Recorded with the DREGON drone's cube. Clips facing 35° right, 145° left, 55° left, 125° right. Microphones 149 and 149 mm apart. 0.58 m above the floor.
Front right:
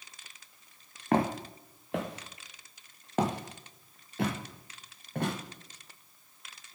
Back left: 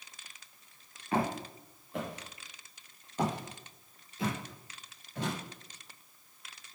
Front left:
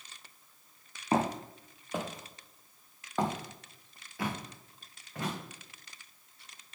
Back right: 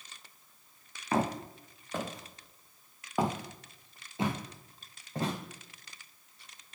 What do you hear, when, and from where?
1.1 s footsteps: 10° right, 2 m; by 5.3 s 70° right, 3 m